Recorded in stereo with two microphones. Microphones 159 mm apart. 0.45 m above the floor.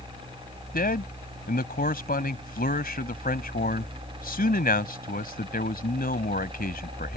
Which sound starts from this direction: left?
A man speaking, at 0.7 s.